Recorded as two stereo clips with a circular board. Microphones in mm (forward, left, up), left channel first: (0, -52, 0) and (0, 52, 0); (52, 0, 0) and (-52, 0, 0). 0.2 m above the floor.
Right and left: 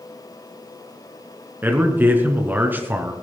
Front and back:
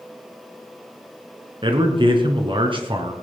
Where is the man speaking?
160° left, 3 m.